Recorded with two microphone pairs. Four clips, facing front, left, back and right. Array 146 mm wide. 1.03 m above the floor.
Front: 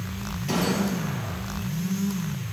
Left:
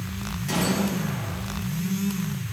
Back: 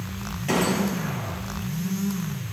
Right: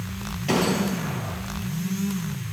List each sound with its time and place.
0.5 s a gunshot: 130° right, 3 m